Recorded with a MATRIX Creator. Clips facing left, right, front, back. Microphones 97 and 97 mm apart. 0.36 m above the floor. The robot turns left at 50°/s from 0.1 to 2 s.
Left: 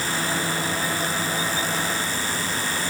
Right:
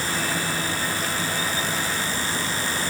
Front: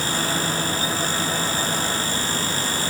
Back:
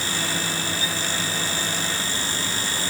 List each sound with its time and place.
Only background noise.